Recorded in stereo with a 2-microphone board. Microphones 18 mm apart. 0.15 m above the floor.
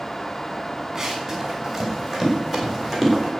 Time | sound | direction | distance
0.9 | running footsteps | 15° right (ahead or behind) | 5 m